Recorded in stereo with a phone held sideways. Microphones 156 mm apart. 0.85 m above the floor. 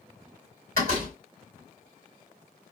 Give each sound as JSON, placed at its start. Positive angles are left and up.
{"t": 0.8, "sound": "a door slam", "side_deg": -70, "distance_m": 3.0}